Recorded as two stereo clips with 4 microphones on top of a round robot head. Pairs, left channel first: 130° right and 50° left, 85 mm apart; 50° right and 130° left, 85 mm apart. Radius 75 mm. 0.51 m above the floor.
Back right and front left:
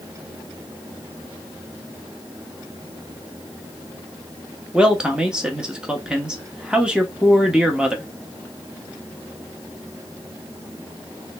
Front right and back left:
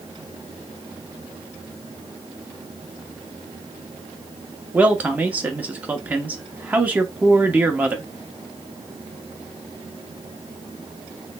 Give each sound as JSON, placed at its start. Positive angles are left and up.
{"t": 4.7, "sound": "a man speaking", "azimuth_deg": 110, "distance_m": 0.7}